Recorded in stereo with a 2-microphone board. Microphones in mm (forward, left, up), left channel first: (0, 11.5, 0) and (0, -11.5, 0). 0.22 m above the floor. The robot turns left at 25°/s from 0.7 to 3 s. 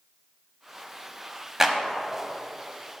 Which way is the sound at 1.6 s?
15° right (ahead or behind).